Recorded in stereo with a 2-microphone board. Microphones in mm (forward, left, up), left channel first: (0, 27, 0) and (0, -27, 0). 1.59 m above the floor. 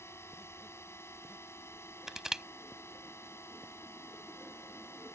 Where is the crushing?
10° right (ahead or behind).